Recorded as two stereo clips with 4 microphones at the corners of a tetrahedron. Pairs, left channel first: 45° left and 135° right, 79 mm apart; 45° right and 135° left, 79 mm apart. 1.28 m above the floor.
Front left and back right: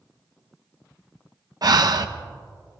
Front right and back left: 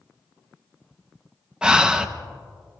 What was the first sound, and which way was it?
Breathing, 150° right.